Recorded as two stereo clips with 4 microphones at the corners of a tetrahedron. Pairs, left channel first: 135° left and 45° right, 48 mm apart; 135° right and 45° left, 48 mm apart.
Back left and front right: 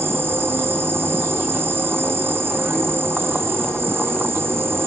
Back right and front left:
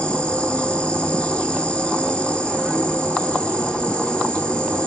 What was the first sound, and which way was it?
An insect, 70° right.